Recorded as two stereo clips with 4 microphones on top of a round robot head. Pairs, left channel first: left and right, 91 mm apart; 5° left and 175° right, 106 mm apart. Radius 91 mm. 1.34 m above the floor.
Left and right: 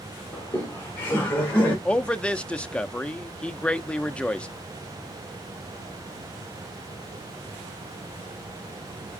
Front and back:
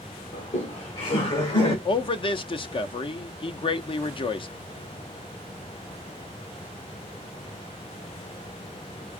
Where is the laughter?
20° left, 1.6 m.